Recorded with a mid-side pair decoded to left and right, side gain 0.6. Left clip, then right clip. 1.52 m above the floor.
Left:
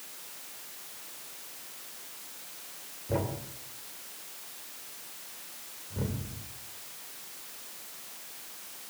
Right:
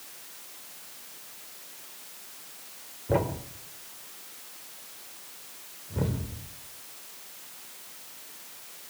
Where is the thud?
40° right, 3 m.